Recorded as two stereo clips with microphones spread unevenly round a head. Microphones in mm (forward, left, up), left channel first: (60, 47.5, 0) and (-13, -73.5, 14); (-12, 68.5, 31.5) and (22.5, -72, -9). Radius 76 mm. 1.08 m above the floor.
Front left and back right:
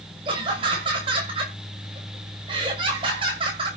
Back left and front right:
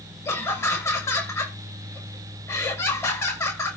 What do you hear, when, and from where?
0.2 s laughter: straight behind, 6.5 m